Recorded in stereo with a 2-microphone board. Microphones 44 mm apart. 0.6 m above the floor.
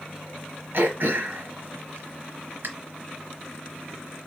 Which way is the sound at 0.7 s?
60° right (ahead or behind).